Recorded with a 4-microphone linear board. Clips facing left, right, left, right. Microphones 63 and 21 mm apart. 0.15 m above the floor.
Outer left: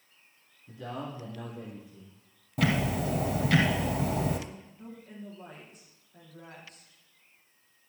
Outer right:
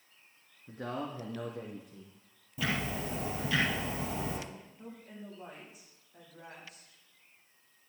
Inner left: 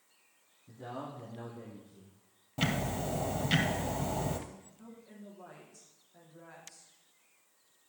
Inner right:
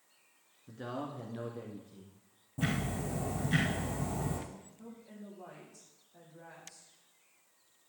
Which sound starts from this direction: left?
Ticking, at 2.6 s.